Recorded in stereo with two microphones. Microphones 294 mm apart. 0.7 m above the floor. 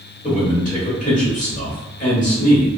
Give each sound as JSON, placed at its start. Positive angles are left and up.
{"t": 0.2, "sound": "a man speaking", "side_deg": 25, "distance_m": 1.6}